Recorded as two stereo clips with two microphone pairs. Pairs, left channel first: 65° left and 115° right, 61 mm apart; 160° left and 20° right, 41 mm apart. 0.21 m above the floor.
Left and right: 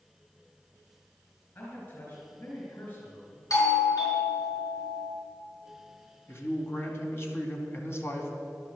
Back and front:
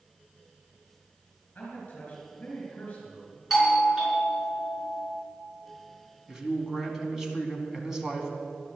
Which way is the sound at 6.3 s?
50° left.